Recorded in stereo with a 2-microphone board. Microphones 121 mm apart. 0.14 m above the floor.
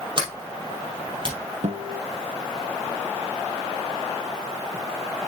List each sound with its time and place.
0.2 s a sliding door: 40° right (ahead or behind), 3 m
1.6 s a guitar: 75° right (ahead or behind), 1.2 m